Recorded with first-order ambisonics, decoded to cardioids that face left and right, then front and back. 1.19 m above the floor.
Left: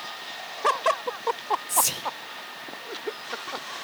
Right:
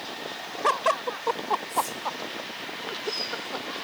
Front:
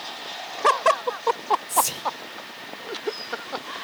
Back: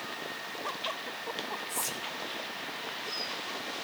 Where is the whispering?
55° left, 0.9 m.